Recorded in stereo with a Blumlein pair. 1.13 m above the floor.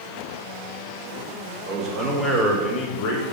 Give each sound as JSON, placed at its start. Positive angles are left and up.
{"t": 1.7, "sound": "a man speaking", "azimuth_deg": -25, "distance_m": 2.0}